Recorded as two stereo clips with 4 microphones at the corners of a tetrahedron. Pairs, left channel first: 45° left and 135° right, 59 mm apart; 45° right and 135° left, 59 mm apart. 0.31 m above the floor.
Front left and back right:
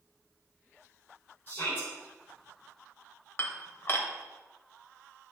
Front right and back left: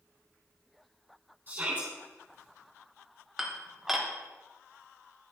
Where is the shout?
90° left, 2.5 m.